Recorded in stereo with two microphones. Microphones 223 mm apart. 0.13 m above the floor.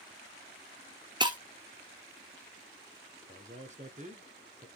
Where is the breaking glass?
20° right (ahead or behind), 1.0 m.